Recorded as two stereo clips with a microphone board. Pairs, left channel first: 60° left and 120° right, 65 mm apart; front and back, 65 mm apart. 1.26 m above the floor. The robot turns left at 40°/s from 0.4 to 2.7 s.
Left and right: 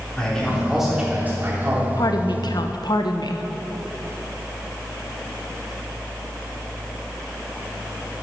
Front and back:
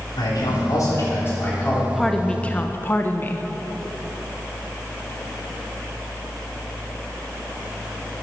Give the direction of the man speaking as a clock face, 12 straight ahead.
1 o'clock.